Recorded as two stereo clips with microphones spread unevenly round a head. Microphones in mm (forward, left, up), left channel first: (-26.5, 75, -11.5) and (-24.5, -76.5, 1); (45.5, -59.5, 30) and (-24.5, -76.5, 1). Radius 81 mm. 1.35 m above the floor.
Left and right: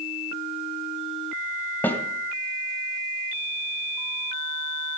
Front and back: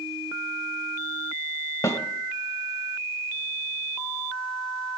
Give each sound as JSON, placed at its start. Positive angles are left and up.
{"t": 1.8, "sound": "a snare drum", "azimuth_deg": 10, "distance_m": 1.9}